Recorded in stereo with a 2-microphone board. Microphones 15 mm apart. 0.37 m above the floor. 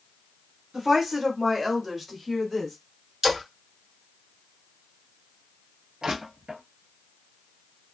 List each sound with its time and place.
0.7 s a woman speaking: 25° right (ahead or behind), 0.9 m; by 2.8 s 5° right (ahead or behind), 1.6 m
3.2 s a splash: 30° right (ahead or behind), 1.4 m
6.0 s crushing: 70° right (ahead or behind), 1.0 m